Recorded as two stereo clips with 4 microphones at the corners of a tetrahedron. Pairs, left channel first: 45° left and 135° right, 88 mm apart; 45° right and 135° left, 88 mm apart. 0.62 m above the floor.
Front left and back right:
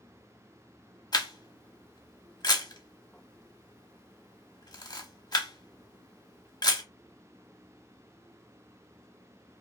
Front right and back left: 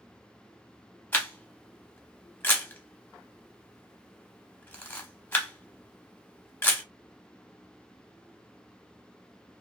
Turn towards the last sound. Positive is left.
turn(degrees=20)